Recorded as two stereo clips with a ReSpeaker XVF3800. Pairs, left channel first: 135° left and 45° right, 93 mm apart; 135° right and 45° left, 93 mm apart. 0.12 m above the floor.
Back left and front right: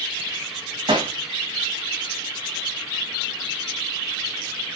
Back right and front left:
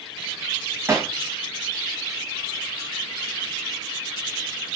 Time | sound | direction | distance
0.9 | hammering | 15° right | 2.5 m